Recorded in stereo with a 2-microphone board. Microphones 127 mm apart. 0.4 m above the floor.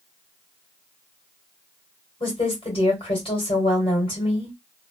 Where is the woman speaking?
45° left (ahead or behind), 1.8 m.